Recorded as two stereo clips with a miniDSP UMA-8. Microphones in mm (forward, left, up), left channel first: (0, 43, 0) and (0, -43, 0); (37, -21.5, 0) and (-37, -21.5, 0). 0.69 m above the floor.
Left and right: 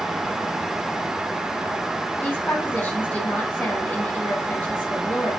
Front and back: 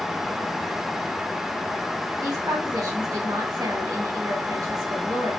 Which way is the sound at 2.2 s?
160° left.